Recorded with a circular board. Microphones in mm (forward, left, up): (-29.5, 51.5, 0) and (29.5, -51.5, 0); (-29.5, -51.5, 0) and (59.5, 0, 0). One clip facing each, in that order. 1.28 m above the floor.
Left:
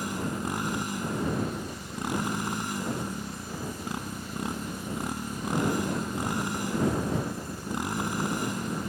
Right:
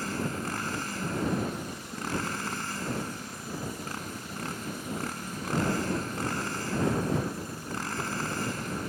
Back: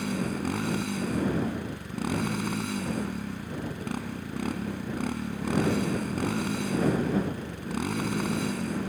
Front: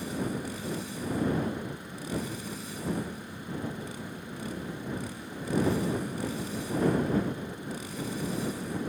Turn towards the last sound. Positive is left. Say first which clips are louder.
# left 1 dB, back 3 dB
turn(degrees=-165)